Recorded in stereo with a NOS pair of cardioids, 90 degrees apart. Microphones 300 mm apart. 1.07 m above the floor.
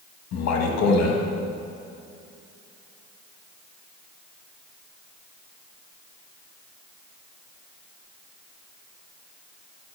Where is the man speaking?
60° left, 1.3 m.